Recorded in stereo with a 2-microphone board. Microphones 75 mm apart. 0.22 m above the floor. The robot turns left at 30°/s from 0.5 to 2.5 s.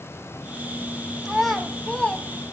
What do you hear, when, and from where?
1.2 s a child speaking: centre (ahead or behind), 0.9 m; by 2.5 s 25° left (ahead or behind), 0.9 m